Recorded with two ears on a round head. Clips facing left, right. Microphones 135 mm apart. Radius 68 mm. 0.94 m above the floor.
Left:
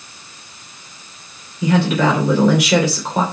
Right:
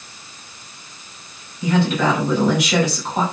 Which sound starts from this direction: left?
A woman speaking, at 1.6 s.